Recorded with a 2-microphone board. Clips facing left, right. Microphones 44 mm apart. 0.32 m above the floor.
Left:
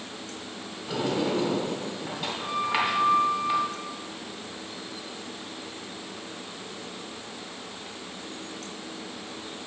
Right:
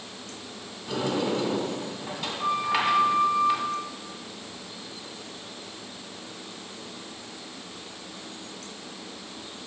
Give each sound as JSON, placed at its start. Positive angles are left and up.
{"t": 0.9, "sound": "a sliding door", "side_deg": 10, "distance_m": 1.6}